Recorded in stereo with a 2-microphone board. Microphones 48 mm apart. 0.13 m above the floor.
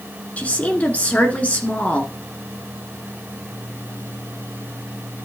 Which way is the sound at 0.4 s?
30° left (ahead or behind).